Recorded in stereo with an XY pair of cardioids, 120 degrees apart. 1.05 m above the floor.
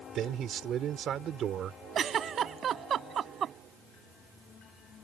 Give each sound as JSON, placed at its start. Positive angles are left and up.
{"t": 0.1, "sound": "a man speaking", "azimuth_deg": -55}
{"t": 1.9, "sound": "a giggle", "azimuth_deg": -45}